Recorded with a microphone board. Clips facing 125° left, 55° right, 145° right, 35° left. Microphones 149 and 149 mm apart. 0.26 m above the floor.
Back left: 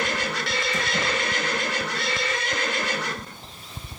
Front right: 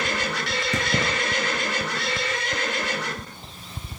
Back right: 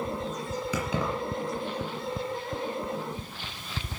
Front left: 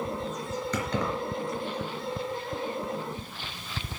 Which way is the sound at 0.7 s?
65° right.